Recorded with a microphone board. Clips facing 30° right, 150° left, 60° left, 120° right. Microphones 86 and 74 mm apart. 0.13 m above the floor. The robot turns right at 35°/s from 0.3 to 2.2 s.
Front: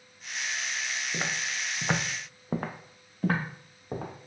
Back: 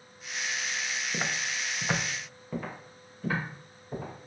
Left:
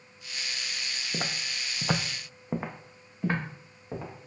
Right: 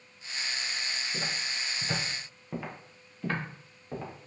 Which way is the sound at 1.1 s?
65° left.